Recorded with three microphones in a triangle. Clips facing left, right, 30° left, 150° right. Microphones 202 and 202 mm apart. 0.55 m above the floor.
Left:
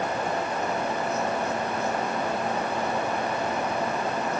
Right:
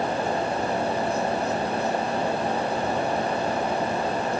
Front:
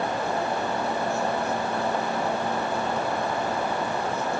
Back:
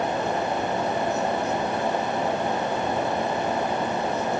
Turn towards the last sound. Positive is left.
No sound to turn to.